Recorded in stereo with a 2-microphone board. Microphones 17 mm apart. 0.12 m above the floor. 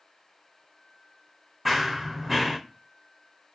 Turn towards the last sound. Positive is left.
turn(degrees=-15)  # may be behind; listen again after turning